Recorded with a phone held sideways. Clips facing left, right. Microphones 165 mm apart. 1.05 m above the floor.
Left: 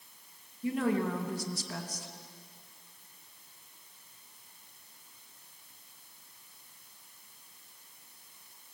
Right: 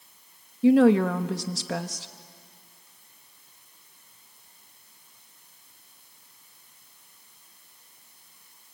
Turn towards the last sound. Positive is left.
turn(degrees=-75)  # may be behind; listen again after turning